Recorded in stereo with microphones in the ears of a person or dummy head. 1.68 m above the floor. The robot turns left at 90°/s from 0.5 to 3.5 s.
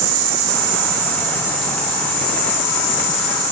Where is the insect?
80° right, 0.8 m; by 3.5 s 10° left, 0.8 m.